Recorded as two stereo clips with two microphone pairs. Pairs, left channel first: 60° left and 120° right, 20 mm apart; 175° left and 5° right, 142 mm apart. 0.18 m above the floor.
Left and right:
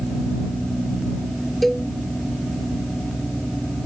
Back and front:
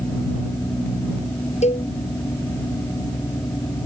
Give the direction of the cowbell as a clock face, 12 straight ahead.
7 o'clock.